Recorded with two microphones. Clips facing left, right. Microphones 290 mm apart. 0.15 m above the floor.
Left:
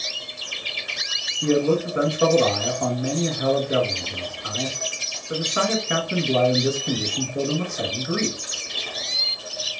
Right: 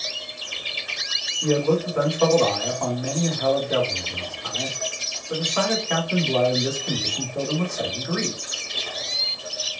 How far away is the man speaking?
About 1.7 m.